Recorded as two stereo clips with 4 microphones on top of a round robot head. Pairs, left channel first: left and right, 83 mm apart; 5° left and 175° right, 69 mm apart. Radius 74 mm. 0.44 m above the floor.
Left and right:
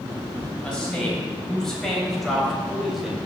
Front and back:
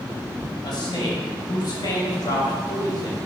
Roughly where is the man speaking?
Ahead.